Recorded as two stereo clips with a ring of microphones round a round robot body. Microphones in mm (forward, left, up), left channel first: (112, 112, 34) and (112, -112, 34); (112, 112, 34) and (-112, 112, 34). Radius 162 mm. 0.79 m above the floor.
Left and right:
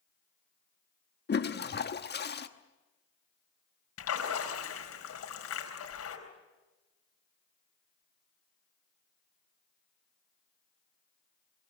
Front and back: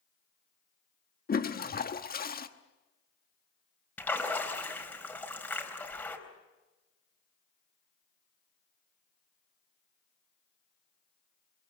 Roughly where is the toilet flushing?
Ahead left.